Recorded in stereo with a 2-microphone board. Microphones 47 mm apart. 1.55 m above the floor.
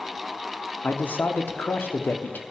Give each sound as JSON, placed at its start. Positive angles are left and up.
{"t": 0.8, "sound": "a man speaking", "side_deg": 40, "distance_m": 0.7}